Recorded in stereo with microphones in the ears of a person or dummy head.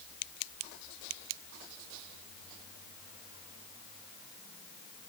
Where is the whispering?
I don't hear whispering.